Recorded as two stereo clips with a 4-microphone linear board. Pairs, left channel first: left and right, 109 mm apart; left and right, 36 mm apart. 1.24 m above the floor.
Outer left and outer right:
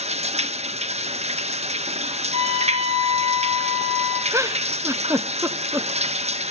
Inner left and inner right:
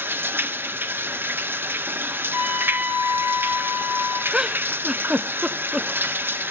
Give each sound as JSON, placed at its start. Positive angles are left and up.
{"t": 0.0, "sound": "running water", "side_deg": -85, "distance_m": 0.8}
{"t": 2.3, "sound": "a trumpet", "side_deg": -75, "distance_m": 3.0}
{"t": 4.3, "sound": "a giggle", "side_deg": -25, "distance_m": 0.7}